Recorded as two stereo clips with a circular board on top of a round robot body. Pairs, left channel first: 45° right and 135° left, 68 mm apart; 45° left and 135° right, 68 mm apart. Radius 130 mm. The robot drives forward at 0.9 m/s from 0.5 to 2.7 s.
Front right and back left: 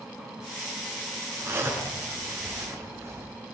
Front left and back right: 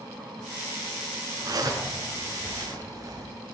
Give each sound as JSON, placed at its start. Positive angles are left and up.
{"t": 1.4, "sound": "a zipper", "azimuth_deg": -165, "distance_m": 7.0}